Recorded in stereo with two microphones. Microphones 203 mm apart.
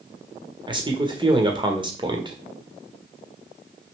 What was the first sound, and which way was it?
A man speaking, 25° right (ahead or behind).